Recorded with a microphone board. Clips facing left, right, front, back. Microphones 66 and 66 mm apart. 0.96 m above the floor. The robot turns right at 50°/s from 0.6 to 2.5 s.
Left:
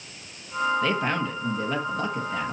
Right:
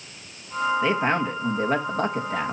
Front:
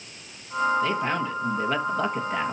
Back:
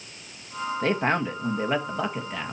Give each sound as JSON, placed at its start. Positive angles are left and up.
{"t": 0.8, "sound": "a man speaking", "azimuth_deg": -155, "distance_m": 1.4}